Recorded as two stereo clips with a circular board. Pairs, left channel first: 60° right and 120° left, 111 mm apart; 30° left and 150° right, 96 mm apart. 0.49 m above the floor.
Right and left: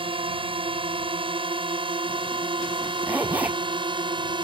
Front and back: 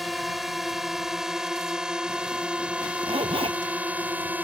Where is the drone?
120° left; by 4.4 s 145° left.